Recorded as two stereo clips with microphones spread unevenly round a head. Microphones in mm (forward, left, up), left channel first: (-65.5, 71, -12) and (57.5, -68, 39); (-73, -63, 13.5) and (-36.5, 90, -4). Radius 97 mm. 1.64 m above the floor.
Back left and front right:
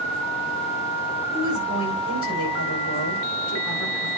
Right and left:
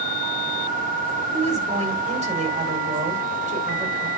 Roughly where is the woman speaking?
Behind left.